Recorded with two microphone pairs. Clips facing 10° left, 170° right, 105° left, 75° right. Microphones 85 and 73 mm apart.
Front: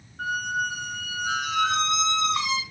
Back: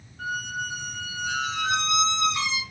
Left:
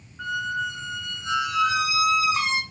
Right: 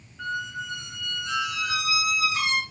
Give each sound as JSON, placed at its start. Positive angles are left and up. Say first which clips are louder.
{"t": 0.2, "sound": "a squeak", "louder": "front 4 dB, left 4 dB", "azimuth_deg": 45, "distance_m": 1.5}